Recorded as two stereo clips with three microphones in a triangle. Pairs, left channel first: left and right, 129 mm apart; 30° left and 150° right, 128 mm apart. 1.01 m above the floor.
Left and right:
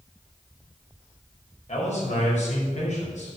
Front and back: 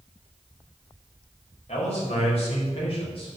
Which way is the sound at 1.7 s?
65° left.